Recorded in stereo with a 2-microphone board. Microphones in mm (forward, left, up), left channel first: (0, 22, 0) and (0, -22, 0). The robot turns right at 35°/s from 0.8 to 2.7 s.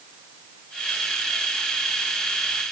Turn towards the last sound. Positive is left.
No sound to turn to.